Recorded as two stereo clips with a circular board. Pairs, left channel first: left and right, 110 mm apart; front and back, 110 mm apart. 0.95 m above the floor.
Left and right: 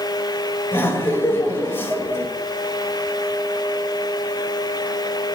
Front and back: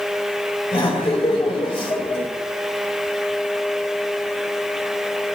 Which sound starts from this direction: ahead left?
Laughter, at 0.7 s.